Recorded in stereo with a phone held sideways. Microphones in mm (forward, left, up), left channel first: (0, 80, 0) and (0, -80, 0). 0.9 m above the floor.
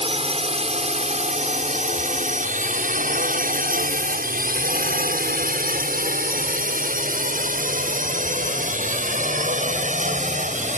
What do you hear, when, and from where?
0.0 s a drone: 40° right (ahead or behind); by 10.8 s 50° right (ahead or behind)